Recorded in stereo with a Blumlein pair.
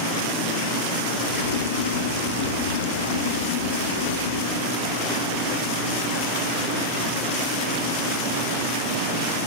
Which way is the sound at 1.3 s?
65° left.